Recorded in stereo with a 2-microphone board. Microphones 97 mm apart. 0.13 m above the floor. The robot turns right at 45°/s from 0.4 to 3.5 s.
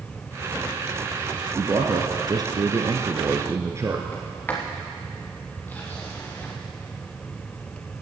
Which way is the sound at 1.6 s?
130° right.